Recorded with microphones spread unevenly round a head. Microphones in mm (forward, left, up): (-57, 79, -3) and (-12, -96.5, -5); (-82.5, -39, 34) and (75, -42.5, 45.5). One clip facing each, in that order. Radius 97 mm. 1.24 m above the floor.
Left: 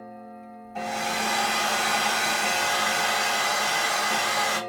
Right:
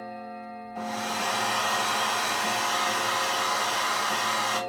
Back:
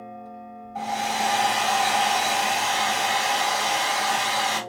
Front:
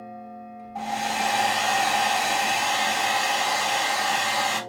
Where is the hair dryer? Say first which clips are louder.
Left 3 dB, back 1 dB; 95° left, 2.5 m.